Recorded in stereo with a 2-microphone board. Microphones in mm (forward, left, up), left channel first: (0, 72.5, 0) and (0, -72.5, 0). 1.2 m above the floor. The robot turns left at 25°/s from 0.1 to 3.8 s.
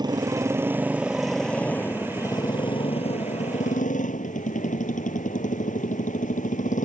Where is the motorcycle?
150° right; by 6.8 s 115° left.